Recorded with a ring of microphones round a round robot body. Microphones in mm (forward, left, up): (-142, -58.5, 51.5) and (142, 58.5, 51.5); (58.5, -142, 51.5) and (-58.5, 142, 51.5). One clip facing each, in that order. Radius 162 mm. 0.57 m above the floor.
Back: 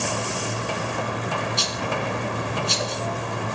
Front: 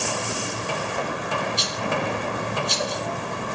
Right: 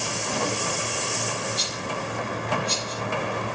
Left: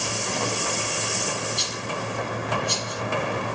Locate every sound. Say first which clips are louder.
1.6 s a rattle: front 1 dB, even; 170° right, 1.7 m